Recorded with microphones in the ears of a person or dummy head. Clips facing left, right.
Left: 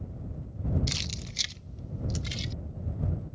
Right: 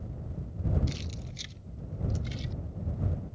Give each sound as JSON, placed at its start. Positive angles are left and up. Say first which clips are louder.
{"t": 0.9, "sound": "keys jangling", "louder": "even", "side_deg": 75}